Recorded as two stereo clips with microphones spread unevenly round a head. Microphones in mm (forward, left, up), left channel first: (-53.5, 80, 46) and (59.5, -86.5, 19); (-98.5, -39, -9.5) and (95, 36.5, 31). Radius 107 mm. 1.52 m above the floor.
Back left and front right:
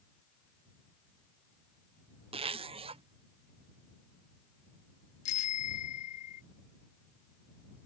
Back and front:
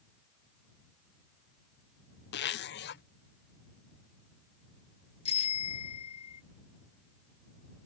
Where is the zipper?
120° right.